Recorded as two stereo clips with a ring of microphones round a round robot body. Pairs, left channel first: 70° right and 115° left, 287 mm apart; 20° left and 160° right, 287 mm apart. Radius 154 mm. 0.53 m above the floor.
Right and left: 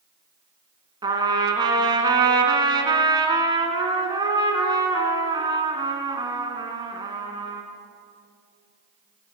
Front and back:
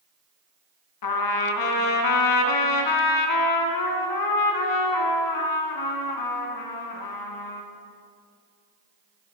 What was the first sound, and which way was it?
A trumpet, 35° left.